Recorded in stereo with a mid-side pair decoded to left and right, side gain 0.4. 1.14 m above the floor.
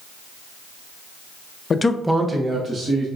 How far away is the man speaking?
About 0.5 m.